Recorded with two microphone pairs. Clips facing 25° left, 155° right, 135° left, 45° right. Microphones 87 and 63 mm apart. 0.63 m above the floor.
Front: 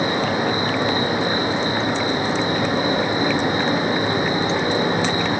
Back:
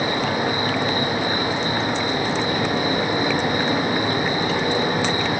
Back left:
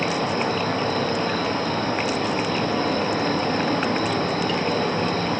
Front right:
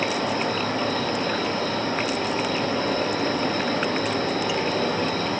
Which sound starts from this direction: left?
An insect, at 0.0 s.